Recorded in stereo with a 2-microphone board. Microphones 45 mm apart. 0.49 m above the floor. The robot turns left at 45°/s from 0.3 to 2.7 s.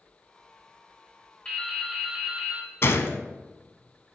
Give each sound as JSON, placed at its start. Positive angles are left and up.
{"t": 1.4, "sound": "dripping", "azimuth_deg": 20, "distance_m": 1.3}
{"t": 2.8, "sound": "a gunshot", "side_deg": 55, "distance_m": 0.5}